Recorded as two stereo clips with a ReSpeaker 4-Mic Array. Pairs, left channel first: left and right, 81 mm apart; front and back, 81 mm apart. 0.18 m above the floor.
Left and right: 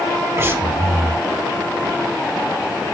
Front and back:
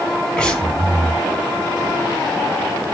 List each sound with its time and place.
0.4 s breathing: 70° right, 1.5 m